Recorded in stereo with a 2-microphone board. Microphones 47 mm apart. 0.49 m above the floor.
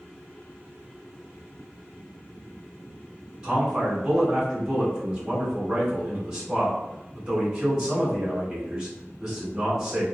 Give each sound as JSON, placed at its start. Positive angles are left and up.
{"t": 3.4, "sound": "a man speaking", "side_deg": -15, "distance_m": 1.6}